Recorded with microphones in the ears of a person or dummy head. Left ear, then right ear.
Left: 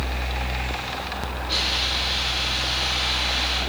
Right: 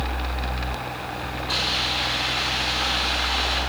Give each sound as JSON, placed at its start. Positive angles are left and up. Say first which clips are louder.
{"t": 1.5, "sound": "a hiss", "louder": "even", "side_deg": -30, "distance_m": 6.5}